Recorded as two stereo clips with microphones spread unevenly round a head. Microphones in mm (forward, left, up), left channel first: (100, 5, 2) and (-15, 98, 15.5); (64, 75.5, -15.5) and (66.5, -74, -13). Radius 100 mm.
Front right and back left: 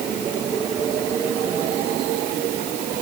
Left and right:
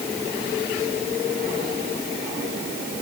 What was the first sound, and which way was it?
Only background noise.